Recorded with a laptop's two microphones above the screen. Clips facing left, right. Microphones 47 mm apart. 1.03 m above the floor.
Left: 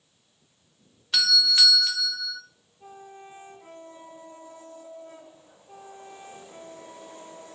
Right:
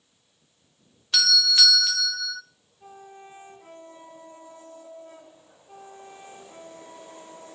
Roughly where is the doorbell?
Centre.